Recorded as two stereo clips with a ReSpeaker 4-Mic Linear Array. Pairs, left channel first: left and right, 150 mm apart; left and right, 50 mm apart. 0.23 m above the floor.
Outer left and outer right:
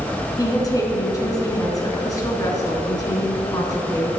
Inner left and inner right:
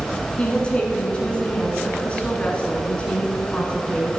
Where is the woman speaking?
25° left (ahead or behind), 2.5 m.